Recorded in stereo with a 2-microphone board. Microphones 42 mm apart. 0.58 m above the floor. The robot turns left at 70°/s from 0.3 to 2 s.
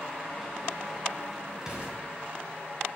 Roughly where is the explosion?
Centre.